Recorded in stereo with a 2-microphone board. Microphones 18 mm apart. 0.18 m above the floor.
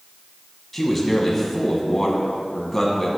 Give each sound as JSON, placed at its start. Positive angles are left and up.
{"t": 0.7, "sound": "a man speaking", "side_deg": 10, "distance_m": 1.1}